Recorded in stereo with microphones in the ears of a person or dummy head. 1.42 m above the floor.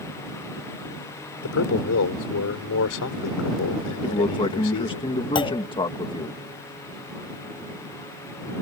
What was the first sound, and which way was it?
A man speaking, 90° left.